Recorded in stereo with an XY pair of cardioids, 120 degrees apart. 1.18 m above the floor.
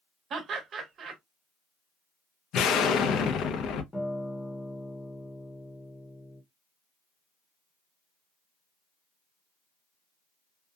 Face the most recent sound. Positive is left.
turn(degrees=20)